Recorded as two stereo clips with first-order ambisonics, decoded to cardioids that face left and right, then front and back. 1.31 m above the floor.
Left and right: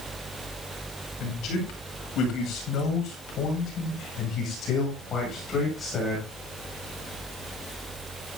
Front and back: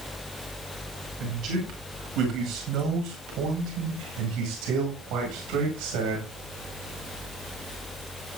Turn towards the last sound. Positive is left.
turn(degrees=165)